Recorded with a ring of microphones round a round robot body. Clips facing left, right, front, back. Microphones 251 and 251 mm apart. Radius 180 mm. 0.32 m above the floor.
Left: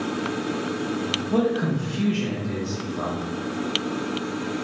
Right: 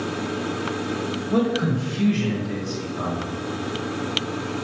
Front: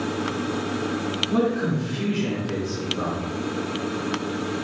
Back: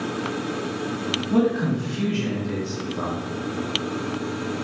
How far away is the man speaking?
About 1.9 m.